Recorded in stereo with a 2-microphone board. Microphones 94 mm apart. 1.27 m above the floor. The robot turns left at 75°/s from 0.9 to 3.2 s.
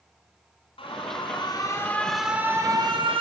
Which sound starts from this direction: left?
An alarm, at 0.8 s.